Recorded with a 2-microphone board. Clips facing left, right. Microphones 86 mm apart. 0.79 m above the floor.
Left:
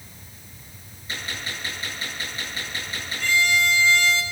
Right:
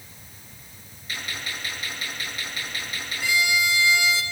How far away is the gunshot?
About 8 m.